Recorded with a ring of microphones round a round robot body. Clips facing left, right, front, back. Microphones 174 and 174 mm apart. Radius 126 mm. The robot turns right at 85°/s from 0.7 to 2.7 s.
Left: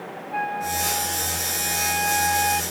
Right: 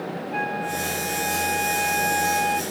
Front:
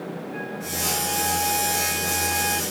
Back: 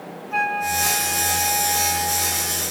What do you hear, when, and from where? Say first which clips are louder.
0.3 s a flute: left 3 dB, back 6 dB; 160° right; by 2.6 s straight ahead